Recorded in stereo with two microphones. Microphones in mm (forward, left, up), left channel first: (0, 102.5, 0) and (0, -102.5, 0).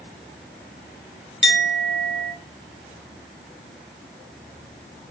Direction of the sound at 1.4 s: 65° left (ahead or behind).